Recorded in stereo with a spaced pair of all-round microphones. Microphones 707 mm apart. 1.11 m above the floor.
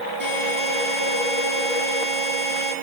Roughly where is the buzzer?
Left.